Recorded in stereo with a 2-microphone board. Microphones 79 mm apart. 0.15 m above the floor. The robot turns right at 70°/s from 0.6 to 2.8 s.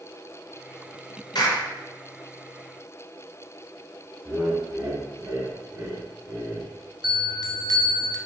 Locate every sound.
1.4 s a clap: 60° left (ahead or behind), 1.9 m; by 1.7 s 55° left (ahead or behind), 1.9 m
4.2 s laughter: 25° right (ahead or behind), 1.1 m
7.0 s a bell: 60° right (ahead or behind), 0.6 m